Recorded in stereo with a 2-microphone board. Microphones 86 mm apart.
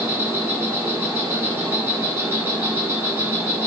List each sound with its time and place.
0.0 s an insect: 25° right (ahead or behind), 1.5 m